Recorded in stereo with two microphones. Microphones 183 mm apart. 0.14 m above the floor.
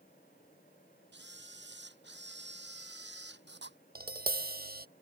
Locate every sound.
1.1 s a camera shutter: 80° right
4.0 s tapping: 55° right (ahead or behind)